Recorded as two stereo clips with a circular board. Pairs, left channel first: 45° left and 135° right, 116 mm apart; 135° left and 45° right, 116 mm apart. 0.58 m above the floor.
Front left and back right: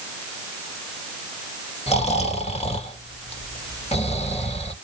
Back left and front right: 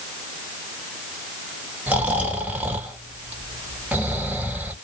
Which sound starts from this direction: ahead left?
Snoring, at 1.9 s.